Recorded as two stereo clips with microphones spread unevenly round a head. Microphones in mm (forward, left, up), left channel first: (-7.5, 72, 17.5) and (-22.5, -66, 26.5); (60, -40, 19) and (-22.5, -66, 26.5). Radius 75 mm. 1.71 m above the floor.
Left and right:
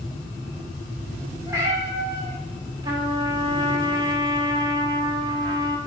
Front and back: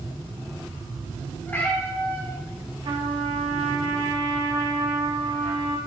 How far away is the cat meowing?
About 1.5 m.